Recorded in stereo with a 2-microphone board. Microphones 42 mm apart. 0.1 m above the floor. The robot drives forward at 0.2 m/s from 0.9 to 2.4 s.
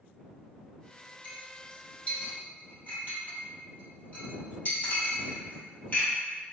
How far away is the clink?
About 1.7 m.